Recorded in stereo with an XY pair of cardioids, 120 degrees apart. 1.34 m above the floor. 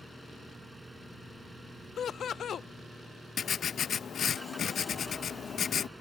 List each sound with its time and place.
0.0 s an engine running: 5° right
2.0 s laughter: 45° left
3.4 s writing: 45° left